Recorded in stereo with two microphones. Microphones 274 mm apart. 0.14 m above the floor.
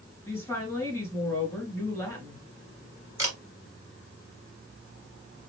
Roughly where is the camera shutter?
Centre.